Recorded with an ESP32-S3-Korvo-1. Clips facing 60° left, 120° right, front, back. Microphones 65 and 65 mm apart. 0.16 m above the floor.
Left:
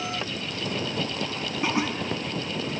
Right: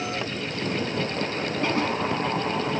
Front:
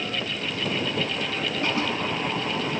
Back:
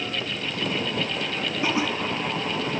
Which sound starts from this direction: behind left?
Laughter, at 1.6 s.